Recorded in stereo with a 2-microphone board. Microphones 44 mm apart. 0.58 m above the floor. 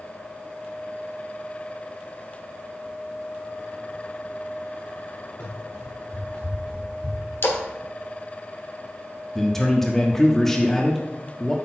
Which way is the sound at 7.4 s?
65° left (ahead or behind).